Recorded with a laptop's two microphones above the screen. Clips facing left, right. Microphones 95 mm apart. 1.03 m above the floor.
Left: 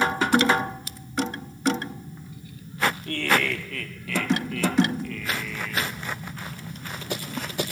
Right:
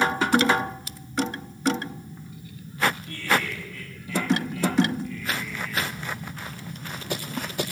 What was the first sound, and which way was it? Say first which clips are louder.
Laughter: left 2 dB; 60° left (ahead or behind).